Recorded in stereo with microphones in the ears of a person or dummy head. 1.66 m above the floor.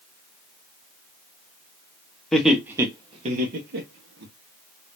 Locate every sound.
2.3 s laughter: centre (ahead or behind), 0.9 m; by 4.3 s 65° right (ahead or behind), 1.0 m